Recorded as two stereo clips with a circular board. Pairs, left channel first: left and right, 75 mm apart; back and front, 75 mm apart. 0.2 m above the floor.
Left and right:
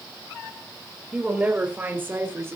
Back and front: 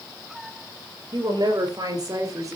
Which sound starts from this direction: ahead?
A woman speaking, at 1.1 s.